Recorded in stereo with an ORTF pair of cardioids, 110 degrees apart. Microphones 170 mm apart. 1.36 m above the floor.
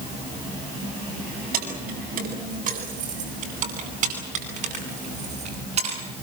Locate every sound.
1.5 s keys jangling: 60° right, 8 m; by 6.0 s 40° right, 10.5 m